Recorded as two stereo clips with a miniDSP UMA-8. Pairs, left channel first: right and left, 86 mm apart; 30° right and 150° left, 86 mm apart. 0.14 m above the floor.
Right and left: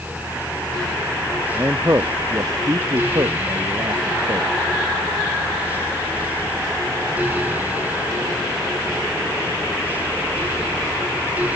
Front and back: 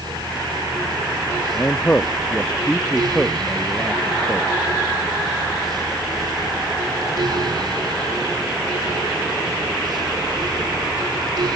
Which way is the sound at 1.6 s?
35° left.